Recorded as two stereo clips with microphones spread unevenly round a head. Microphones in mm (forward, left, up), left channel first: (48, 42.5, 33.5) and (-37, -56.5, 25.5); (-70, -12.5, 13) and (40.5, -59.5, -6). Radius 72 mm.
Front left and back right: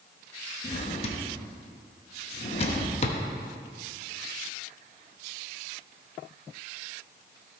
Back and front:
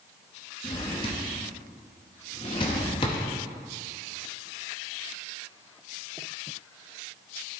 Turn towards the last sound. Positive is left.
turn(degrees=95)